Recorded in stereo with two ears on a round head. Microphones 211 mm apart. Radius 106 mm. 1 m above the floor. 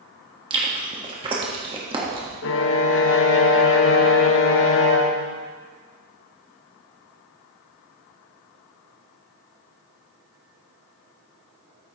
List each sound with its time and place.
0.5 s chewing: 20° right (ahead or behind), 1.3 m
2.4 s a violin: 55° left (ahead or behind), 0.7 m